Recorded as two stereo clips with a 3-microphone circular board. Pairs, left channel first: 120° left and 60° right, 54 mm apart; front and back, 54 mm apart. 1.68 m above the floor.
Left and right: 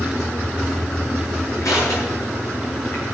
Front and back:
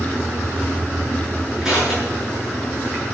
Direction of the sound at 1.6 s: 100° left.